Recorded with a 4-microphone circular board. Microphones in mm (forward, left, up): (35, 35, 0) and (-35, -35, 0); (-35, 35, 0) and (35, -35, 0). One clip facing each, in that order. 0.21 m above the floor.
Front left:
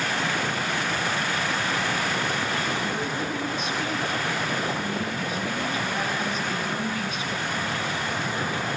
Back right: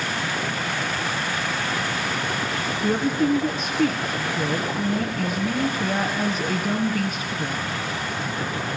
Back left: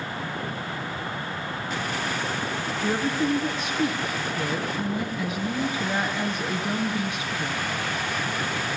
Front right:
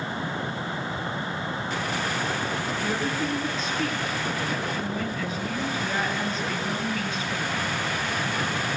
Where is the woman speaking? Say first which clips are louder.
Back right 7 dB, back left 6 dB; 160° right, 2 m.